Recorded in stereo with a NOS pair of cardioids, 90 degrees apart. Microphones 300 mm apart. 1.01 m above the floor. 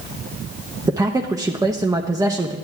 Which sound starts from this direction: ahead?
A man speaking, at 0.9 s.